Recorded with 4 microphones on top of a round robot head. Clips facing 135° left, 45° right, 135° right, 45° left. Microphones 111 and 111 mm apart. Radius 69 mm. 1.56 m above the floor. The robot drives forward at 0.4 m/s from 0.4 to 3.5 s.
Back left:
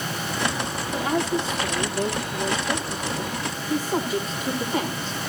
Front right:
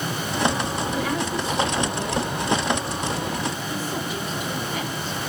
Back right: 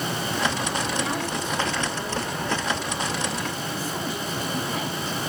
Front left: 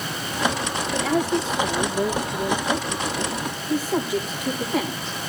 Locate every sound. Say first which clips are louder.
0.9 s a woman speaking: back left 5 dB, front left 5 dB; 65° left, 7 m; by 5.2 s 75° left, 7 m